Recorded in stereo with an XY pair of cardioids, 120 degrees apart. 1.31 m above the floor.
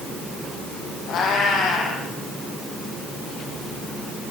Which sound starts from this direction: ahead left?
A cat meowing, at 1.1 s.